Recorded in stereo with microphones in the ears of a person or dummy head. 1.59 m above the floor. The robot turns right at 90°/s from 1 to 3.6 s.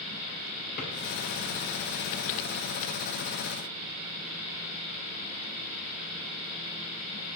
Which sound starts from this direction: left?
A drawer, at 0.8 s.